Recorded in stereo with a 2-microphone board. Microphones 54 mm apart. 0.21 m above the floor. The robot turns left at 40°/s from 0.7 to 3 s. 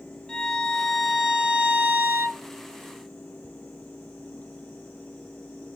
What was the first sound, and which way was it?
A violin, 10° left.